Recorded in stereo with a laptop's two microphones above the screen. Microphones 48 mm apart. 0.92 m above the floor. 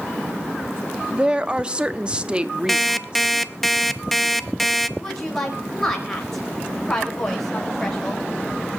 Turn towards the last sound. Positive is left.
turn(degrees=5)  # may be behind; listen again after turning